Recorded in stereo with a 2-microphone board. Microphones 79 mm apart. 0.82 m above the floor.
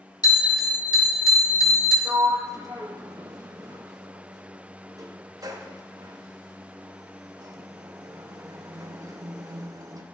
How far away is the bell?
About 1.9 m.